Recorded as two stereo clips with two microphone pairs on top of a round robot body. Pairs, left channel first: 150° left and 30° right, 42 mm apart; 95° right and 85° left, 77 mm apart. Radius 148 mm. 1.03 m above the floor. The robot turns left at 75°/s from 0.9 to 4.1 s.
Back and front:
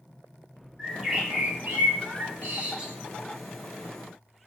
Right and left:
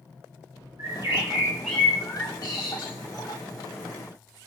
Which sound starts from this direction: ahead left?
A bird, at 0.8 s.